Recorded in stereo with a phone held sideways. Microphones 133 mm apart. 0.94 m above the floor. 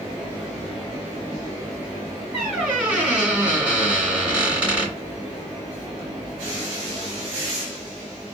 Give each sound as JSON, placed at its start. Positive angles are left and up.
{"t": 2.3, "sound": "a squeak", "side_deg": -10, "distance_m": 2.5}